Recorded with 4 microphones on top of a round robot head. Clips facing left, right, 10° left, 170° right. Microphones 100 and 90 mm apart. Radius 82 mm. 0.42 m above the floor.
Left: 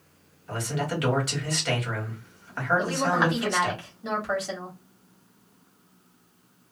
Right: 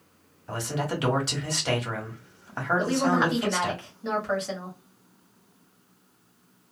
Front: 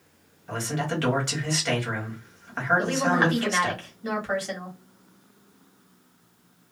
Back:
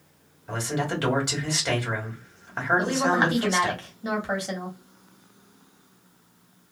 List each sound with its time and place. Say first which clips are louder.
0.5 s a man speaking: even, back 1 dB; 105° right, 1.5 m
2.8 s a woman speaking: right 3 dB, back 1 dB; 170° left, 1.4 m